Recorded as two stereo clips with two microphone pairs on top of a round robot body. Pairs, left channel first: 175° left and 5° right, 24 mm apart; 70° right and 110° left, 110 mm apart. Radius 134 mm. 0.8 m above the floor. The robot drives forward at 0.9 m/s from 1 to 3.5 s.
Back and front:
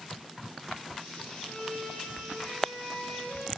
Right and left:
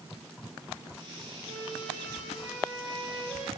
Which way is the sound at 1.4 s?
165° right.